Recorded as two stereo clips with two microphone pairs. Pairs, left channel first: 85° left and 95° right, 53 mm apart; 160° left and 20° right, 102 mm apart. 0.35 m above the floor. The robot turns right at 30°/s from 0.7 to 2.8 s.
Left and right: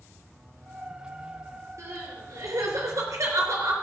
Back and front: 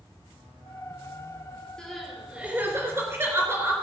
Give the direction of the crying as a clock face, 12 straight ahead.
4 o'clock.